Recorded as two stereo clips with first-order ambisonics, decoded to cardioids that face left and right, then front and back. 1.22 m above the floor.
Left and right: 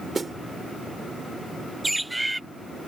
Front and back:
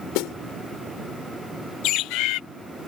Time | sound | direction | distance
0.1 | a snare drum | 15° right | ?
1.8 | a bird | 5° right | ?